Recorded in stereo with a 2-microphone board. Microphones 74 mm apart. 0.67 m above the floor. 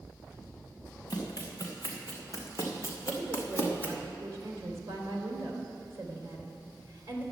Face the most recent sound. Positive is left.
turn(degrees=-35)  # may be behind; listen again after turning